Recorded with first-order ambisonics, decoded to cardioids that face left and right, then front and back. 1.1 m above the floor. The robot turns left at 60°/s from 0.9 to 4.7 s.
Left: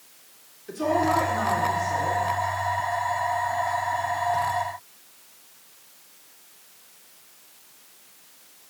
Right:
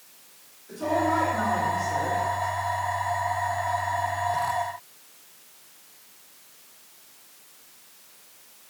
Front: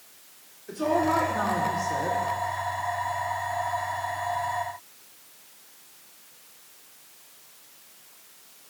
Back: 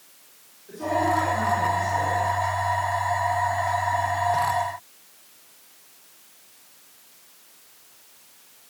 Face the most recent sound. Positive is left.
turn(degrees=-165)